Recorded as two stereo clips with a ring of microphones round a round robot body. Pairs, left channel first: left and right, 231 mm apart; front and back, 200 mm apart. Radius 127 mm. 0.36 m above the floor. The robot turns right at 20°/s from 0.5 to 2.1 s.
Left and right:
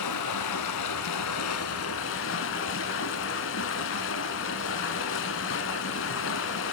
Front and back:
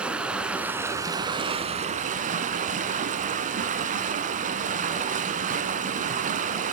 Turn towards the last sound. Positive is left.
turn(degrees=125)